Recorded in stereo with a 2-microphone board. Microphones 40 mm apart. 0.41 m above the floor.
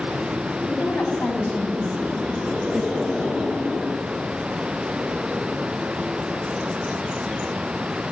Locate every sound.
0.7 s a woman speaking: 55° left (ahead or behind), 3.5 m; by 3.0 s centre (ahead or behind), 2 m